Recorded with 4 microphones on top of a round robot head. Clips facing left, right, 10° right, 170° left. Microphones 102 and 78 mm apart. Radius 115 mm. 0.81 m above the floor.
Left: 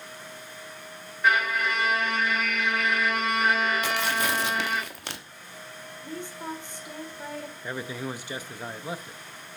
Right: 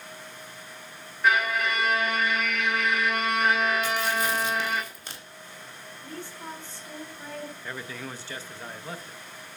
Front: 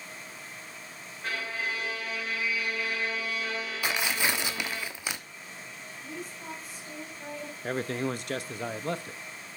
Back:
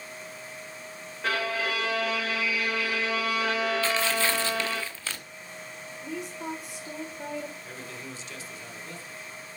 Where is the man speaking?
15° left, 0.8 m.